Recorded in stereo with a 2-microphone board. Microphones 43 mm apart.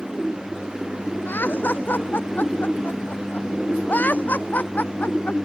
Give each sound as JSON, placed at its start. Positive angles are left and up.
{"t": 1.3, "sound": "laughter", "side_deg": 50}